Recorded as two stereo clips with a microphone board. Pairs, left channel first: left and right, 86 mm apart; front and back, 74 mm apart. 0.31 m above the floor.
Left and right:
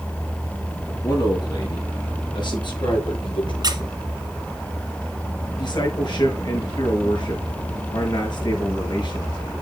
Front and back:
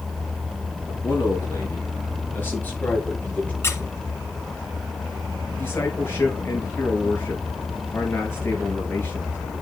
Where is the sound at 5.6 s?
60° left, 6 m.